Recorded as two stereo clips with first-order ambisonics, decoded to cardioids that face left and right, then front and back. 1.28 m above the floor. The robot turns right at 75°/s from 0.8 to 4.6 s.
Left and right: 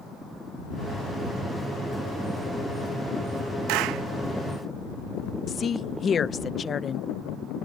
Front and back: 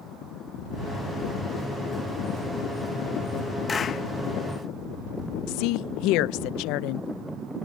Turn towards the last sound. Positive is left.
turn(degrees=25)